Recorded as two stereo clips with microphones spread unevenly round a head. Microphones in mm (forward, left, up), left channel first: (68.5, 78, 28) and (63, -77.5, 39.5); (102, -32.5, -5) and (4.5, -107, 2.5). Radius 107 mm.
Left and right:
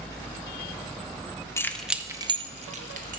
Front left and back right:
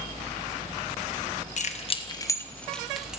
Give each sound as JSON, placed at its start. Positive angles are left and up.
{"t": 1.6, "sound": "keys jangling", "azimuth_deg": 15, "distance_m": 1.0}